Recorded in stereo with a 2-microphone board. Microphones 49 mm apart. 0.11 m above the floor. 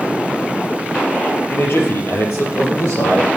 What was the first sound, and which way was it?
A man speaking, 50° left (ahead or behind).